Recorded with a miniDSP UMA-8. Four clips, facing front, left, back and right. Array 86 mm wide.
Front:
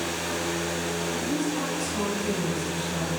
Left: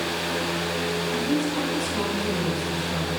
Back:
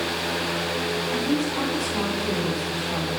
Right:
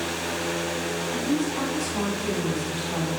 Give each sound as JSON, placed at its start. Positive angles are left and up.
{"t": 1.1, "sound": "a woman speaking", "azimuth_deg": -150, "distance_m": 2.5}